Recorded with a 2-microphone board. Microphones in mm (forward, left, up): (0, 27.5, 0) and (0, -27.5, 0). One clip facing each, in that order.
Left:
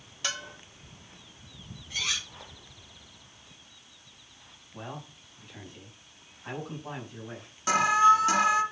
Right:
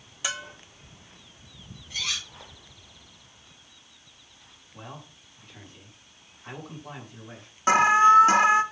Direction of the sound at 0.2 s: 10° right (ahead or behind).